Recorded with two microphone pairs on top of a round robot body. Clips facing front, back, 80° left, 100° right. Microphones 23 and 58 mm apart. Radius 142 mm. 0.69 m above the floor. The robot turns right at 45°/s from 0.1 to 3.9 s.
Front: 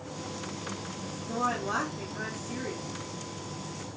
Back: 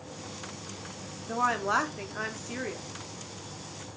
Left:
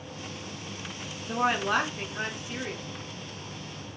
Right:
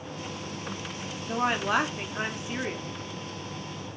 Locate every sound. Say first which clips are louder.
1.3 s a woman speaking: back 3 dB, even; 150° left, 0.9 m; by 2.9 s 140° right, 0.9 m